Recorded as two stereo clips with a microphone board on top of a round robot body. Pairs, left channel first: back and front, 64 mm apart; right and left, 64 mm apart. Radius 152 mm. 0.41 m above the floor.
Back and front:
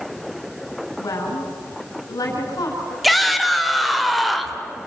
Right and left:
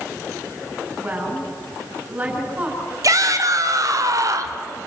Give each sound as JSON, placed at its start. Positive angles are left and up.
{"t": 1.0, "sound": "a woman speaking", "azimuth_deg": 155, "distance_m": 5.5}
{"t": 3.0, "sound": "a shout", "azimuth_deg": 90, "distance_m": 2.5}